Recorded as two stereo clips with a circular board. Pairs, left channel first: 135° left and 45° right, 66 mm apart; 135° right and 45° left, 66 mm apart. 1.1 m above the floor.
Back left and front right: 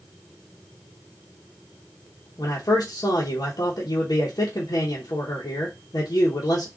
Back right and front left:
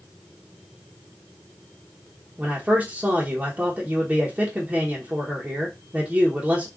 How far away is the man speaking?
About 0.8 m.